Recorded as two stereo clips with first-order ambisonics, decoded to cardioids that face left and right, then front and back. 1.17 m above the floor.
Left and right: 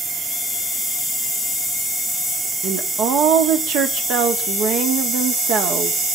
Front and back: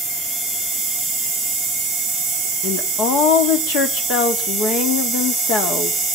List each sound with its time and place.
2.6 s a woman speaking: 40° right, 2 m